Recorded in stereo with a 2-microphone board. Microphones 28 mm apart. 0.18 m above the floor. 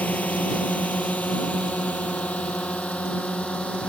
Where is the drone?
65° left (ahead or behind); by 3.9 s 45° left (ahead or behind).